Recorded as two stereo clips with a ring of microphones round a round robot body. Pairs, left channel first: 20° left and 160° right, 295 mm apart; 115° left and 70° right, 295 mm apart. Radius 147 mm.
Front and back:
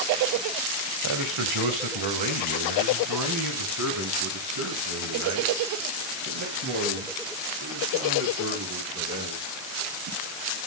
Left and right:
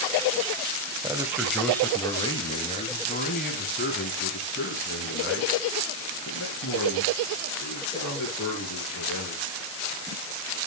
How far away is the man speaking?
About 1.6 m.